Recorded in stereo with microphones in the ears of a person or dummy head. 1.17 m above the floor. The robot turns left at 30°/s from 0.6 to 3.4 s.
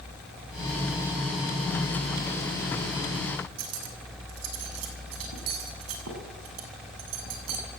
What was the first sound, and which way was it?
Cutlery clinking, 90° right.